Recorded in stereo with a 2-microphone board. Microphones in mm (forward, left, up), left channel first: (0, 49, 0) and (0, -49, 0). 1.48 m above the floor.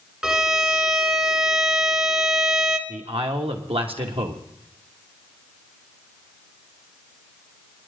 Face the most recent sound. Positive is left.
turn(degrees=-80)